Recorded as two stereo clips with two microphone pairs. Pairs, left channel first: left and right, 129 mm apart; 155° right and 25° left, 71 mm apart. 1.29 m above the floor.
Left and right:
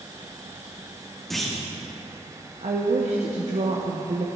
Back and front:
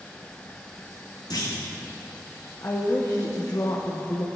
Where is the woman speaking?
110° right, 0.9 m.